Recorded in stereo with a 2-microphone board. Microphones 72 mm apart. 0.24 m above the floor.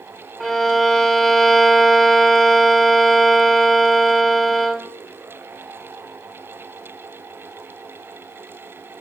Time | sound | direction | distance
0.4 | a violin | 5° left (ahead or behind) | 1.0 m